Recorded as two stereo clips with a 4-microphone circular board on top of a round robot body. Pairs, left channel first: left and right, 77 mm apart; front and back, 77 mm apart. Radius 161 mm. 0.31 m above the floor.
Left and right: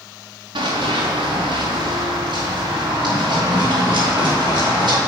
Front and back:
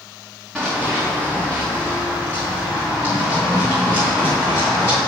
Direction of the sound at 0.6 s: 85° right.